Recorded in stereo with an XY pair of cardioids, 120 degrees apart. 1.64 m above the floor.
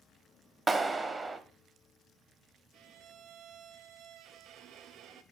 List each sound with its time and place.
0.7 s a clap: 20° right, 1.1 m
2.7 s a violin: 65° right, 0.7 m